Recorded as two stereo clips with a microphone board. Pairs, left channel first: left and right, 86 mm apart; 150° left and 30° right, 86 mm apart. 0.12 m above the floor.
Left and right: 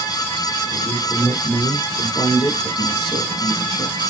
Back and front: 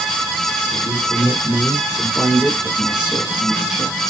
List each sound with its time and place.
0.7 s a man speaking: 30° left, 3 m; by 4.0 s 55° left, 5 m